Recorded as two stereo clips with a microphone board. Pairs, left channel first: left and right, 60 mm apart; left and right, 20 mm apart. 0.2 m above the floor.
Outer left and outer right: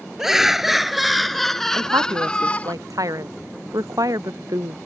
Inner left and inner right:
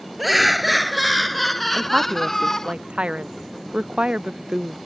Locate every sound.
0.2 s laughter: 5° right (ahead or behind); by 2.7 s 25° left (ahead or behind)
1.7 s a woman speaking: 70° right (ahead or behind)